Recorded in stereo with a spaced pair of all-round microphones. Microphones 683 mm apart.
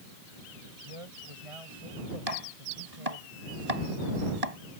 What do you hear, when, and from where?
0.8 s a man speaking: 50° right (ahead or behind)
2.3 s chopping: 60° right (ahead or behind)